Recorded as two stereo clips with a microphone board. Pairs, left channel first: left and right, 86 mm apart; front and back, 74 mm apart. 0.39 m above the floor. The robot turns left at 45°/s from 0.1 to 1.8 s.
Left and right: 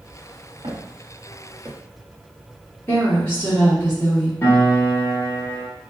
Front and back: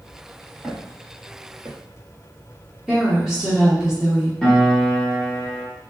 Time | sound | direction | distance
0.6 | footsteps | 95° right | 1.8 m
2.9 | a woman speaking | 100° left | 1.3 m
4.4 | a piano | 75° left | 1.0 m